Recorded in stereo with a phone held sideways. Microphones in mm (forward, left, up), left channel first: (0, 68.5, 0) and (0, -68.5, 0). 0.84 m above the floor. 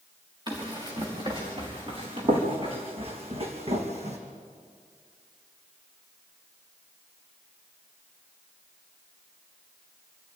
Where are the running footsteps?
30° right (ahead or behind), 5.5 m; by 4.2 s 55° right (ahead or behind), 3 m.